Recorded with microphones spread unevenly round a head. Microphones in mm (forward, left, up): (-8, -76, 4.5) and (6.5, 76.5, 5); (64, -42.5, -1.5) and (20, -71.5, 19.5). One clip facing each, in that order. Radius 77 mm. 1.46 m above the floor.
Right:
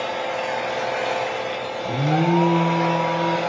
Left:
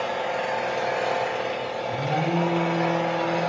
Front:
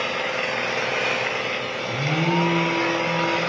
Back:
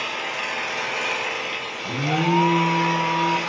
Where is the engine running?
10° right, 7.5 m.